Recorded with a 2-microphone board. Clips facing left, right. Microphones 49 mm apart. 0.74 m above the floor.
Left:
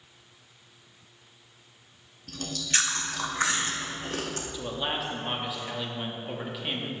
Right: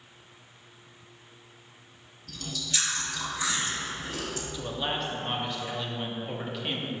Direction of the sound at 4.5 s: 5° left (ahead or behind).